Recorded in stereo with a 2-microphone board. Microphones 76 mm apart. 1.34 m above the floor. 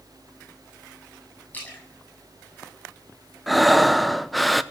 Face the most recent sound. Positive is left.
turn(degrees=0)  # may be behind; listen again after turning